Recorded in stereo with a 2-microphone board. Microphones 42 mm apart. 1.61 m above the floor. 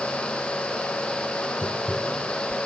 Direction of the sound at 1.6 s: 15° left (ahead or behind).